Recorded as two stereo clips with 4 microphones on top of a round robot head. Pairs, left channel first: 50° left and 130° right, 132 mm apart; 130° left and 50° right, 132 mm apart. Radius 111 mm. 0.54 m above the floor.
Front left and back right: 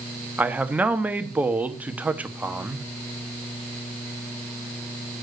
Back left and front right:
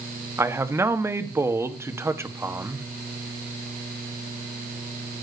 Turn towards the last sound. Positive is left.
turn(degrees=-75)